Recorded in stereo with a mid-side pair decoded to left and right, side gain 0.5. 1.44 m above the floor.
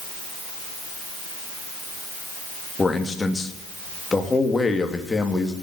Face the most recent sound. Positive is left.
turn(degrees=20)